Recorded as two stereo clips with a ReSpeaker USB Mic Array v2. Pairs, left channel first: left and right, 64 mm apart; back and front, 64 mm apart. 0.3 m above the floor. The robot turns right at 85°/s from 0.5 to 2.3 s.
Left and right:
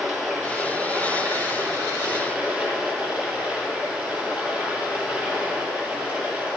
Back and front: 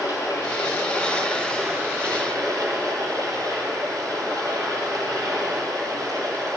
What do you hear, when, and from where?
0.0 s running water: straight behind, 3 m; by 6.6 s 25° right, 3 m